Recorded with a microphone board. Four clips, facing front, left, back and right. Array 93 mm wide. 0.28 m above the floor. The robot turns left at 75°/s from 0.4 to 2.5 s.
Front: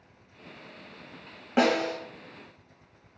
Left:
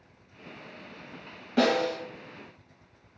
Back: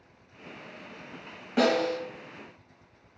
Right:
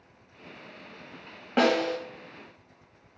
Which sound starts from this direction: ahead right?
A snare drum, at 1.6 s.